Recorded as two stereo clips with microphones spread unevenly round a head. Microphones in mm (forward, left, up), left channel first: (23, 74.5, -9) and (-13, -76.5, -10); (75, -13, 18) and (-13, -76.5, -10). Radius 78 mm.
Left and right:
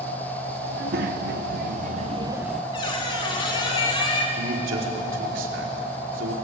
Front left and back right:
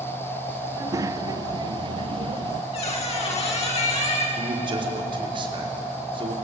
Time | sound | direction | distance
0.7 | a child speaking | 80° right | 1.8 m
2.7 | a squeak | 15° left | 3 m
4.4 | a man speaking | 100° right | 5 m